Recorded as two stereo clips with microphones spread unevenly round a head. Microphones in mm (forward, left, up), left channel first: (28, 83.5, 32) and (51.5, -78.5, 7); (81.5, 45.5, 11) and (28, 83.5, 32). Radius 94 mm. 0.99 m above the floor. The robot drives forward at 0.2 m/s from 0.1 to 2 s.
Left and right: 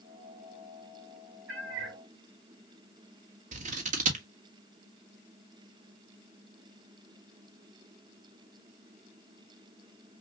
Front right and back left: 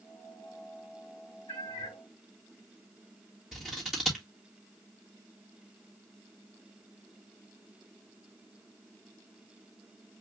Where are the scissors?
125° right, 1.4 m.